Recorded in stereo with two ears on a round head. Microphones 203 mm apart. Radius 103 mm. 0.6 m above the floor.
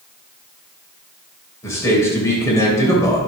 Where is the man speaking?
15° left (ahead or behind), 2.5 m.